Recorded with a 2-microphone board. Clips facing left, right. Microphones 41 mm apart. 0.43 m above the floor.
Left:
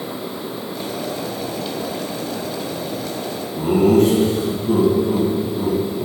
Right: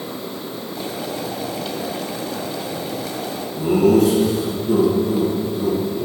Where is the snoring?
I don't hear snoring.